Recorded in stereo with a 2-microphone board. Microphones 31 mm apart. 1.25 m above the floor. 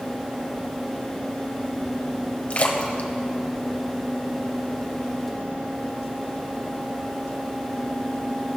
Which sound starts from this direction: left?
A splash, at 2.5 s.